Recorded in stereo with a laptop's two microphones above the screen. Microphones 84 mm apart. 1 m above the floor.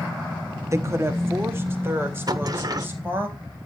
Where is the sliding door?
45° right (ahead or behind), 1.4 m.